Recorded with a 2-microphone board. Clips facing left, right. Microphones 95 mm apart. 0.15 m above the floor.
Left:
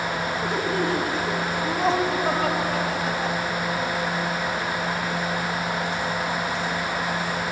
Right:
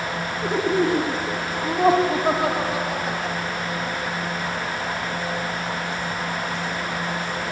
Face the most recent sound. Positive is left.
turn(degrees=0)  # may be behind; listen again after turning